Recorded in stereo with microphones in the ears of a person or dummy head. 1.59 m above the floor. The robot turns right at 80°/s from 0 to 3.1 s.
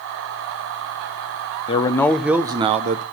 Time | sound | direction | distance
1.7 | a man speaking | 145° left | 0.6 m